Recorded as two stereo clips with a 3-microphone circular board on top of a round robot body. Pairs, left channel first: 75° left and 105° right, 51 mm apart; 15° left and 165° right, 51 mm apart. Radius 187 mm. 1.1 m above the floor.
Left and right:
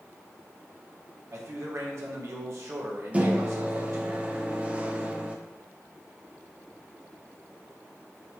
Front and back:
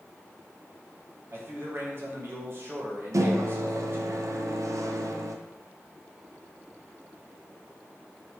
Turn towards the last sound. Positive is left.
turn(degrees=-170)